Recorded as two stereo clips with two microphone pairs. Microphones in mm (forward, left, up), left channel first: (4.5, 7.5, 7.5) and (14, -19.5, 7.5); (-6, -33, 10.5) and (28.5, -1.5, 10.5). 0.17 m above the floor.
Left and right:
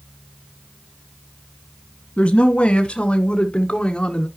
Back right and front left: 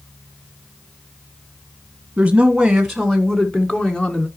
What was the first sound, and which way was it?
A woman speaking, 100° left.